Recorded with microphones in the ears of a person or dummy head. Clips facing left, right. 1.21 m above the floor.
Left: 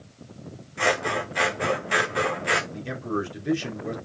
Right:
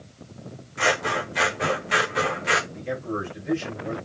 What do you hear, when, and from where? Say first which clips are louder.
0.8 s scissors: even; 5° left (ahead or behind), 1.6 m
2.7 s a man speaking: even; 70° left (ahead or behind), 3 m